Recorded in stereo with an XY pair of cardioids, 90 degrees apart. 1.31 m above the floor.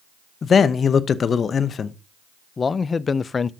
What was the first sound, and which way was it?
A man speaking, 50° left.